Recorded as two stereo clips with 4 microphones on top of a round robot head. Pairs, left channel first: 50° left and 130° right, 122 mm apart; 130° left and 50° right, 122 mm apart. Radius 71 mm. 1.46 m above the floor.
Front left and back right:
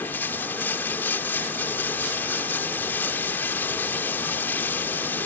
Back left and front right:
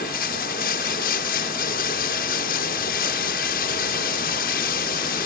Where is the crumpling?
I don't hear crumpling.